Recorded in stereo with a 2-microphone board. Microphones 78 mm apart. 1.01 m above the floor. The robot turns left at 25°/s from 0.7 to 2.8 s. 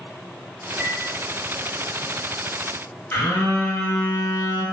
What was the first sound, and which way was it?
A chime, 25° left (ahead or behind).